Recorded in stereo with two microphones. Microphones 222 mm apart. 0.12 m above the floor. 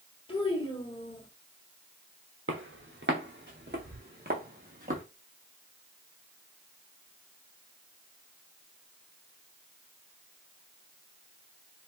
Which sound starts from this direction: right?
Footsteps, at 2.5 s.